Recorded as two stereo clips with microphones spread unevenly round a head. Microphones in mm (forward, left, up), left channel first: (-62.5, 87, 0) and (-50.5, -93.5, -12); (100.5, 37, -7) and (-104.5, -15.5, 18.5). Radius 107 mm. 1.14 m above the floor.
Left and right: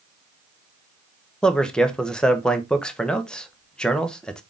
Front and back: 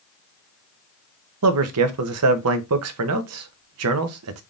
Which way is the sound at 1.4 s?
Straight behind.